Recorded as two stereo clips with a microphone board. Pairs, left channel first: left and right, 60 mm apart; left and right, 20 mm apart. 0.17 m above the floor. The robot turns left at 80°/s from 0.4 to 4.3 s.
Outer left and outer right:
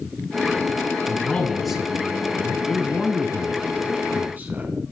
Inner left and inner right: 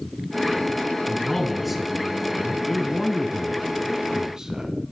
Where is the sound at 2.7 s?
5° left, 1.3 m; by 4.7 s 125° right, 1.3 m.